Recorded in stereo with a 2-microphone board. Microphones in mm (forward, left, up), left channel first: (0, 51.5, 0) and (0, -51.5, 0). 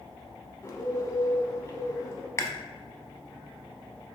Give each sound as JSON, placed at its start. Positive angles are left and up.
{"t": 0.6, "sound": "a bird", "side_deg": 30, "distance_m": 0.9}
{"t": 2.4, "sound": "chewing", "side_deg": 30, "distance_m": 0.6}